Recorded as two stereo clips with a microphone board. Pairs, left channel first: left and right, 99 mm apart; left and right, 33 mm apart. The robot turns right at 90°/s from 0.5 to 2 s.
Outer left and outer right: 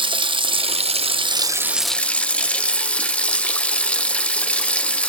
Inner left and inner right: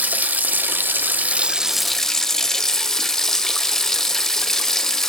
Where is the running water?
125° right, 0.8 m; by 5.1 s 10° left, 0.8 m.